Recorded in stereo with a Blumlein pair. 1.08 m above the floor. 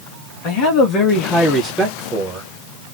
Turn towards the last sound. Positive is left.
turn(degrees=-25)